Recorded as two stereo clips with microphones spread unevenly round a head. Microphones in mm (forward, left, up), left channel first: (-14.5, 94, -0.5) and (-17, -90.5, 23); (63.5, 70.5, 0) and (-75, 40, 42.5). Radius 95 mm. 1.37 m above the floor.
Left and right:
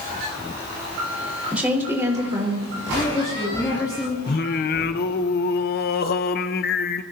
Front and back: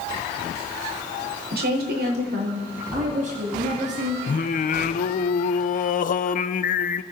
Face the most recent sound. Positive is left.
turn(degrees=45)